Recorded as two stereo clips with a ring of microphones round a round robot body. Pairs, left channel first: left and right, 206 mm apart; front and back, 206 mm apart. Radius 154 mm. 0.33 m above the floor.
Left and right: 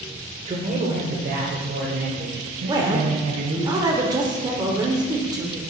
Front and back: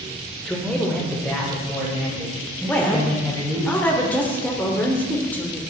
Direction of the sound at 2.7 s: 65° right.